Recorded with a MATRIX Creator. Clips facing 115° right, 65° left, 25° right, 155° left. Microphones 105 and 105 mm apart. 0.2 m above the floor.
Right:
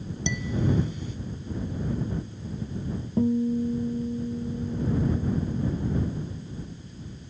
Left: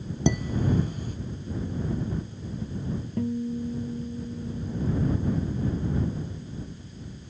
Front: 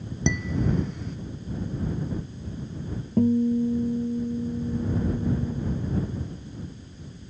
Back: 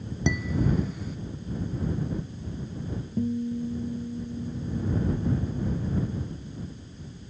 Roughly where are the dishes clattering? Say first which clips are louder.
Left 2 dB, even; left.